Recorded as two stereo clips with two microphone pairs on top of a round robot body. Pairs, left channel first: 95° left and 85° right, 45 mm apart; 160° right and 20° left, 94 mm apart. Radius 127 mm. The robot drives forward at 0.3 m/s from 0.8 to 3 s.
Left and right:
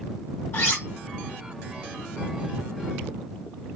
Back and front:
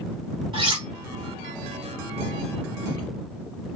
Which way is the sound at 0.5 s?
55° left.